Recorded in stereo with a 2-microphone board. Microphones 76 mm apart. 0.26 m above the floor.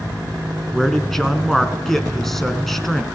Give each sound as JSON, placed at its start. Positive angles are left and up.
{"t": 0.7, "sound": "a man speaking", "side_deg": 5, "distance_m": 3.0}